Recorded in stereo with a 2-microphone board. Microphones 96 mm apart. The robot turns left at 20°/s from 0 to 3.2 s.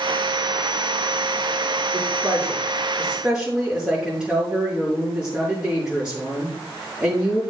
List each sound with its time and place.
1.9 s a woman speaking: 35° right (ahead or behind), 6.5 m; by 7.4 s 10° right (ahead or behind), 6.5 m